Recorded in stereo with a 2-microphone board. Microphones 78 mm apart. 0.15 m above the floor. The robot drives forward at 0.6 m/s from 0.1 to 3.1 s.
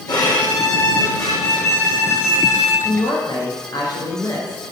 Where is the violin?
60° left (ahead or behind), 2.5 m; by 2.7 s 35° left (ahead or behind), 3.5 m.